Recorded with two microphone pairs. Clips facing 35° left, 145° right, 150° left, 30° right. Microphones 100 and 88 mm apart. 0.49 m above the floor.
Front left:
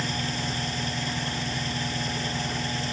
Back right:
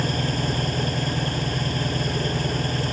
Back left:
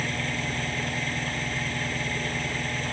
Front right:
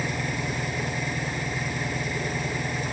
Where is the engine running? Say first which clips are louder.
Back right 5 dB, front right 1 dB; 105° right.